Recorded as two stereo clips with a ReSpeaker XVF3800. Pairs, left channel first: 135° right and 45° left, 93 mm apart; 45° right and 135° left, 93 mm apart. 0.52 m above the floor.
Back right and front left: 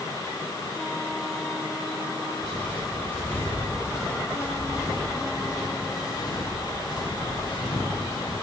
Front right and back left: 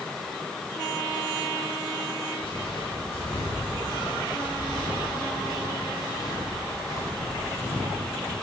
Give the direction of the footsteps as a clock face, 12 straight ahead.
2 o'clock.